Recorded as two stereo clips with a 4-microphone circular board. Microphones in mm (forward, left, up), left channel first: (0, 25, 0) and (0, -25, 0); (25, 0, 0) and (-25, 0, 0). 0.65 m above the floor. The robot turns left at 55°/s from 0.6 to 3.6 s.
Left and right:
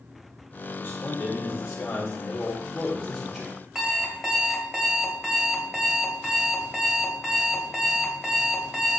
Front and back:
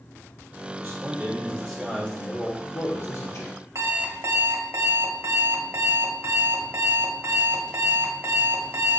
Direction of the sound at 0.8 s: 130° left.